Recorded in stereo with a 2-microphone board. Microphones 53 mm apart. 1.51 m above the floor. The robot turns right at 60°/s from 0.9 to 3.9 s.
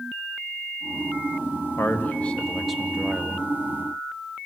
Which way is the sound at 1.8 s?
125° left.